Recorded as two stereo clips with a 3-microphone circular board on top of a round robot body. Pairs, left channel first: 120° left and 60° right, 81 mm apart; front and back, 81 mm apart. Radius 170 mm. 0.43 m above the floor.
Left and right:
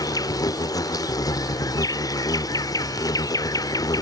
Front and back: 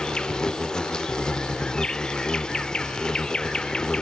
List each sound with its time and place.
0.0 s an insect: 80° left